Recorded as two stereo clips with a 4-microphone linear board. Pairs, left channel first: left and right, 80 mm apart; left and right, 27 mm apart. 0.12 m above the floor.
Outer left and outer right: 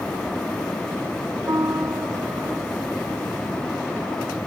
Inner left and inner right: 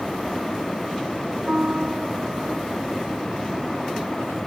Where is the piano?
35° right (ahead or behind).